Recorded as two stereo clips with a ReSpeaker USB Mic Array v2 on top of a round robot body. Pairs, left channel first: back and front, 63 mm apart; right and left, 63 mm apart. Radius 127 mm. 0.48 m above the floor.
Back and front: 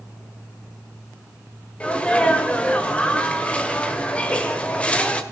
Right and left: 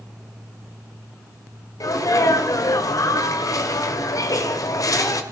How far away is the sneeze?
About 2 m.